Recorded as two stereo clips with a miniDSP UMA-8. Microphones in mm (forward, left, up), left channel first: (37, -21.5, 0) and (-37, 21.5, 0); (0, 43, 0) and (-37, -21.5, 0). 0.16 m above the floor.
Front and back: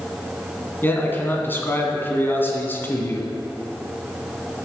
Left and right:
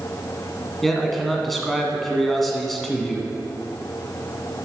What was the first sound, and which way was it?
A man speaking, 25° right.